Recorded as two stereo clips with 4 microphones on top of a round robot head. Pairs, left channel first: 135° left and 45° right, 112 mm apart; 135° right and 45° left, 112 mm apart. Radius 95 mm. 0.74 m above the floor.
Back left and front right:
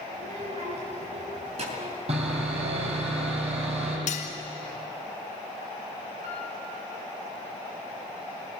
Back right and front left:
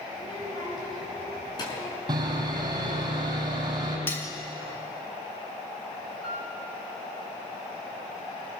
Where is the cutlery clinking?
155° left, 1.8 m.